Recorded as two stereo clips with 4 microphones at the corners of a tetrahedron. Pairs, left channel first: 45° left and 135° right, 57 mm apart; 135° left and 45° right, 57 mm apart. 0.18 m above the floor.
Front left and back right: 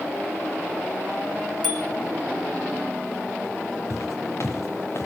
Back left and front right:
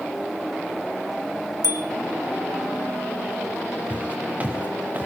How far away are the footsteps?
About 3 m.